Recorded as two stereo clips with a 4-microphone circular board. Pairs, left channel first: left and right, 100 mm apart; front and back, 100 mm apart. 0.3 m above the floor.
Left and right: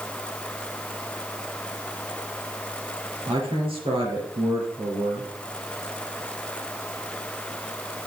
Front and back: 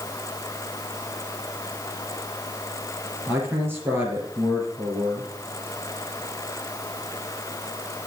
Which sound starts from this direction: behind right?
A man speaking, at 3.3 s.